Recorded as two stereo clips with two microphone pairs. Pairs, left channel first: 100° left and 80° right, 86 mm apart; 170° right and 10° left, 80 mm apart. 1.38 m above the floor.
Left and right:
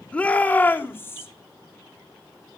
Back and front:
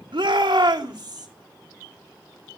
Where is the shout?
25° left, 2.5 m; by 1.3 s 40° left, 3 m.